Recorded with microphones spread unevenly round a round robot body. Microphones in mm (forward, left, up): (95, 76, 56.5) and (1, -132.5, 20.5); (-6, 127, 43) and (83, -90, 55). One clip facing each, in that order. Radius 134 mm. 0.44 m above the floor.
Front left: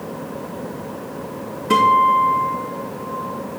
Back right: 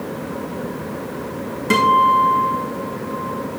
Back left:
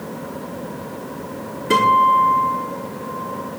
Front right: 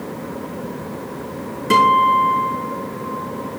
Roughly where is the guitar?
Right.